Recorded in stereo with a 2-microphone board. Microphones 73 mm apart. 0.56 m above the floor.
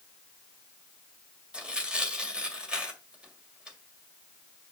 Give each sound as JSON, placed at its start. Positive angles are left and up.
{"t": 1.5, "sound": "tearing paper", "side_deg": -15, "distance_m": 1.9}